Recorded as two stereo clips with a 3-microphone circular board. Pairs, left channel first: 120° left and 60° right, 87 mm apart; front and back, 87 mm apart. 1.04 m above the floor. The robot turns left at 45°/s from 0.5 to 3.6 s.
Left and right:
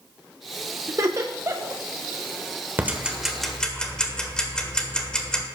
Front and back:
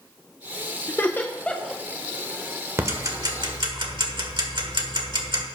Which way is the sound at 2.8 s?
120° right.